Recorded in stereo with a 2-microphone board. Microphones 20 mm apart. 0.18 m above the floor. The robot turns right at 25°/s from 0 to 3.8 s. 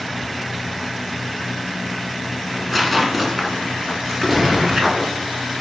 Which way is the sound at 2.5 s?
10° left (ahead or behind).